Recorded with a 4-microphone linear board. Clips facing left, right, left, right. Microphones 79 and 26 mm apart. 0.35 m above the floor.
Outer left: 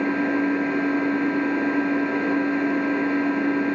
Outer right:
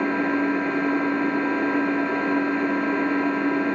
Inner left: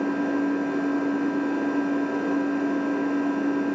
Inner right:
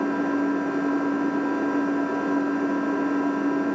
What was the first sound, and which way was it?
An engine running, 5° left (ahead or behind).